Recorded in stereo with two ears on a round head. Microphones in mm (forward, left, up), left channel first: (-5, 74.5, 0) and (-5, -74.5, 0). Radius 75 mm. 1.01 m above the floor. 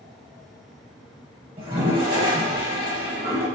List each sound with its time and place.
1.6 s a toilet flushing: 30° right (ahead or behind), 0.9 m